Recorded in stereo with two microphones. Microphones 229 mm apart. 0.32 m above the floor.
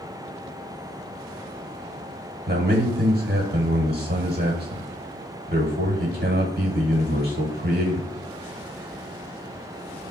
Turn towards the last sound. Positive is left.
turn(degrees=-40)  # may be behind; listen again after turning